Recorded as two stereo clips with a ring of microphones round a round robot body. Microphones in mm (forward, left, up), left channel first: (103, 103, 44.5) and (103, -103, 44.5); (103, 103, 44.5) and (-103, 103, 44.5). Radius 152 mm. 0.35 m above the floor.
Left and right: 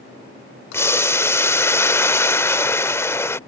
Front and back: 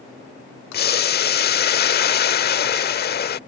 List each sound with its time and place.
0.7 s boiling: 15° left